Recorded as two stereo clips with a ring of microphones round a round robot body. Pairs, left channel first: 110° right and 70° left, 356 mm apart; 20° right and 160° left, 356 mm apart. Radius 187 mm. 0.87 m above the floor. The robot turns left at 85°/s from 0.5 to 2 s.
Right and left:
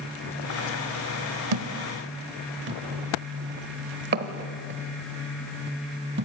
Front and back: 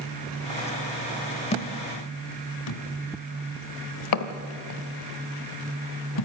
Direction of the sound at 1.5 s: 50° left.